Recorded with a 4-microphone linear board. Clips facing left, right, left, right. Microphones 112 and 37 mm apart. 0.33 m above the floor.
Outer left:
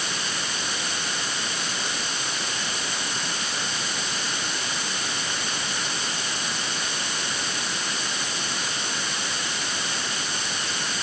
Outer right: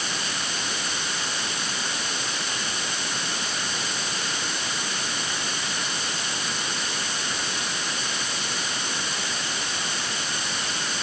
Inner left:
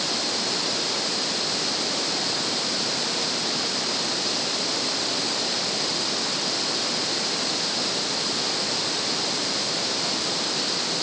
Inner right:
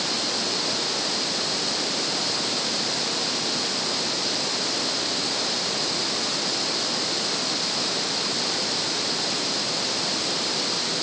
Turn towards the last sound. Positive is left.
No sound to turn to.